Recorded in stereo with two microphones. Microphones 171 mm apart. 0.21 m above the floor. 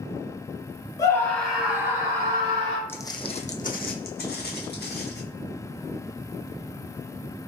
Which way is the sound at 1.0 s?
20° left (ahead or behind).